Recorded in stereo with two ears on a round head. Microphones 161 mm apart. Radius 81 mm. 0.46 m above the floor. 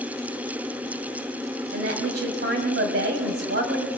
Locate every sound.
1.7 s a woman speaking: 60° right (ahead or behind), 2.5 m